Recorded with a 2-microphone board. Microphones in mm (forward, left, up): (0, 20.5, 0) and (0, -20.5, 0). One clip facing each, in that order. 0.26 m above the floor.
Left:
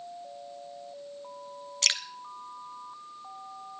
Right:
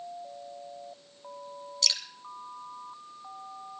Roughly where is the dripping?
Left.